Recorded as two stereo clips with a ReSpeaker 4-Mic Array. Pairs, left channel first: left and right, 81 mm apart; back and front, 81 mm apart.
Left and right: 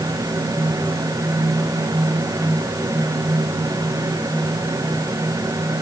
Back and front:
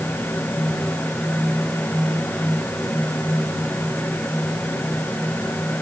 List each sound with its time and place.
Only background noise.